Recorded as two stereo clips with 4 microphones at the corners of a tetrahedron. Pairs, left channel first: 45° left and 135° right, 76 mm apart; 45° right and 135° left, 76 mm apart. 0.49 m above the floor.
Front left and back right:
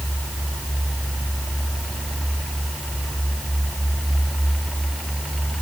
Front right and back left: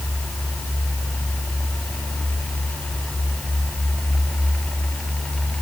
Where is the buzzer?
No buzzer in this recording.